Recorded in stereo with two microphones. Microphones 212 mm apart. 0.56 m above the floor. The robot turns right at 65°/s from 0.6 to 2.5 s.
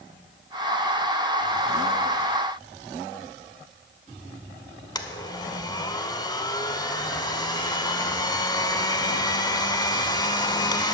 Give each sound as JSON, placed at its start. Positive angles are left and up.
{"t": 5.0, "sound": "a blender", "side_deg": 20, "distance_m": 0.7}